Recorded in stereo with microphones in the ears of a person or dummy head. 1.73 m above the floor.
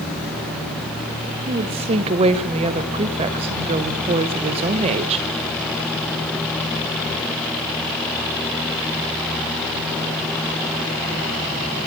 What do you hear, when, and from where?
1.5 s a woman speaking: 30° right (ahead or behind), 1.5 m